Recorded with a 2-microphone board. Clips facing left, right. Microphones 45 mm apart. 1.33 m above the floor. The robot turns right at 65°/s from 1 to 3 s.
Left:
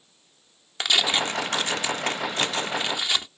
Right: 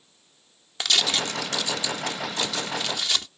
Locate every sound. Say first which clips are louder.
0.8 s tearing paper: left 2 dB; 25° left; by 3.3 s 155° left